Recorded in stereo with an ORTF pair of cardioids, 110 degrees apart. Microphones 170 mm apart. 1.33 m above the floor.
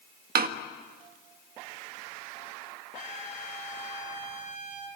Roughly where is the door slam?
Ahead right.